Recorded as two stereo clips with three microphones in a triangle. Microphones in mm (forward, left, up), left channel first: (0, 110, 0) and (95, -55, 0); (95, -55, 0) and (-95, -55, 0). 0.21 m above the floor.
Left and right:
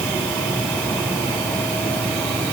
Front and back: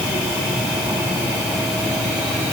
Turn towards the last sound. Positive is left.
No sound to turn to.